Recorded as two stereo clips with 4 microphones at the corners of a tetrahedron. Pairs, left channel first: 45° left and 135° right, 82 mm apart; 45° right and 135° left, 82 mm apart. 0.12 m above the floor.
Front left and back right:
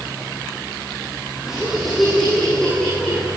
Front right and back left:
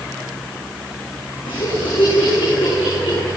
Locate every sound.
1.4 s laughter: 50° right, 5.5 m; by 3.3 s 30° right, 7 m